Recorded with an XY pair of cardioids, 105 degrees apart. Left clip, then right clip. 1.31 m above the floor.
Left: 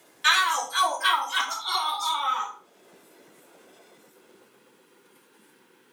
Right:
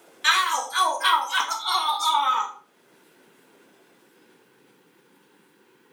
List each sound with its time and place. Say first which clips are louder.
0.2 s a shout: even; straight ahead, 1.8 m; by 2.5 s 40° right, 1.4 m